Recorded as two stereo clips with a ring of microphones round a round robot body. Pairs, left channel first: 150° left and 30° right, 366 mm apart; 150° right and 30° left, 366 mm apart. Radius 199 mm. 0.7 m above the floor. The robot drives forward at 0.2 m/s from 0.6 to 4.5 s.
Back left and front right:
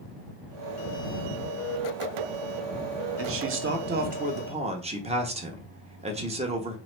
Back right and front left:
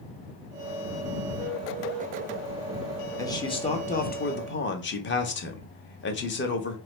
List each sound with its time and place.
3.2 s a man speaking: 70° right, 0.7 m; by 6.8 s 100° right, 0.7 m